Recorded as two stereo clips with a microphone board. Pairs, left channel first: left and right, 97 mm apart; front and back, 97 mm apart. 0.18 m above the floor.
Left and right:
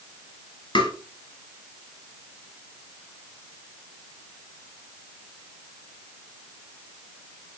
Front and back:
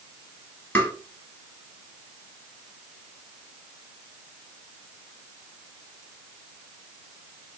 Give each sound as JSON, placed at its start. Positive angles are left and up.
{"t": 0.8, "sound": "tapping", "azimuth_deg": 70, "distance_m": 1.4}